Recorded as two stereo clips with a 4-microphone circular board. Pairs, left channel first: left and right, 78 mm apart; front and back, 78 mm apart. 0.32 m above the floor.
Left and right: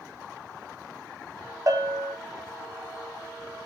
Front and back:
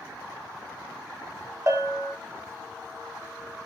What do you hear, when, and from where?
1.7 s a bell: 130° right, 0.7 m